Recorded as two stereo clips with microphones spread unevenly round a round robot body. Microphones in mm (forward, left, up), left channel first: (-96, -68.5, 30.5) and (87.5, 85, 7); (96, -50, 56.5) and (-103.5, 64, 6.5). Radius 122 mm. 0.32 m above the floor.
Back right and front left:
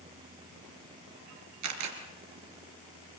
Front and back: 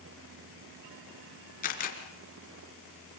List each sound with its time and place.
1.6 s a camera shutter: 25° left, 3.5 m